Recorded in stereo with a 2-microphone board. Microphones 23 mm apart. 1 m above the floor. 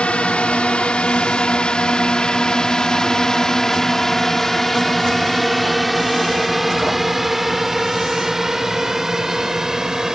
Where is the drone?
55° left (ahead or behind); by 10.2 s 25° right (ahead or behind).